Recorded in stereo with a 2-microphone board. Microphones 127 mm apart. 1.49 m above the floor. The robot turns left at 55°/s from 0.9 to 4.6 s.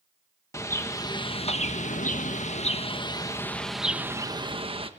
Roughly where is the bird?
Behind left.